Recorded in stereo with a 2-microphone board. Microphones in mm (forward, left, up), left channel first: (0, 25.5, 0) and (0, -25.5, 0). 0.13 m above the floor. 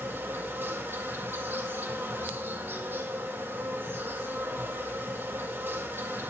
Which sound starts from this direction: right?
An insect, at 0.0 s.